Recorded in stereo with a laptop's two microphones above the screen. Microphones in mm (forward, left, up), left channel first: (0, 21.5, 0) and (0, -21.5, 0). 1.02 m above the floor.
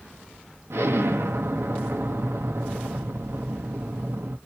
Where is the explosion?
85° right, 0.9 m.